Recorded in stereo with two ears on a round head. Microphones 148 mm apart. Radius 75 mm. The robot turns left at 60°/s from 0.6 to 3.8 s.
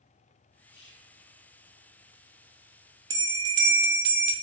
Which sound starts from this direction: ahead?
A bell, at 3.1 s.